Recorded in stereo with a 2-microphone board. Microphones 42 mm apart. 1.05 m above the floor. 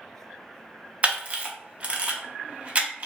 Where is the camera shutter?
30° right (ahead or behind), 0.5 m.